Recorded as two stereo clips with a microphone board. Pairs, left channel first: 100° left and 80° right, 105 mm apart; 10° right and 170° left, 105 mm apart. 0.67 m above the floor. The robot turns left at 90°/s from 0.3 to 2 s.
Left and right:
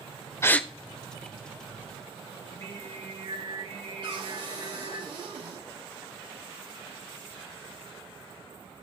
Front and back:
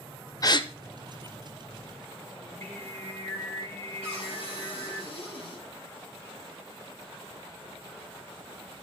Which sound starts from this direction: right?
Singing, at 2.4 s.